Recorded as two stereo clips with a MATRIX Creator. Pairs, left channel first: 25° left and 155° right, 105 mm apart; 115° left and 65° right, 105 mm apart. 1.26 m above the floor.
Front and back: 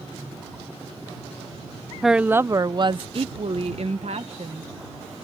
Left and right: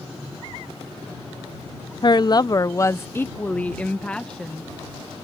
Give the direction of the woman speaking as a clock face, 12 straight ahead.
8 o'clock.